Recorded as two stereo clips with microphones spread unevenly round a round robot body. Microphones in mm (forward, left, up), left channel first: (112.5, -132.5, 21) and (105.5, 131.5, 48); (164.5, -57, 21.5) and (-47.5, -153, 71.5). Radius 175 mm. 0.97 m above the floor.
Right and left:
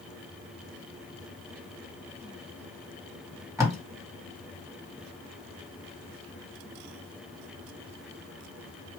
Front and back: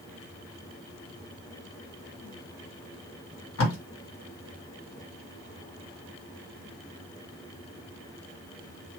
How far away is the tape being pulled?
About 1.8 m.